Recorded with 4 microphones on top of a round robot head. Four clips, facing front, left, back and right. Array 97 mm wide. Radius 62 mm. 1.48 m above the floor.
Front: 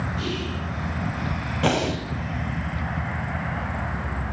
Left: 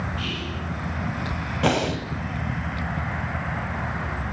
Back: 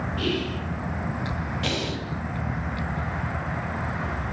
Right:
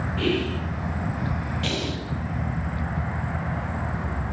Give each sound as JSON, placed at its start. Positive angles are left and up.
{"t": 0.2, "sound": "whispering", "azimuth_deg": -115, "distance_m": 3.5}
{"t": 1.6, "sound": "breathing", "azimuth_deg": 50, "distance_m": 2.5}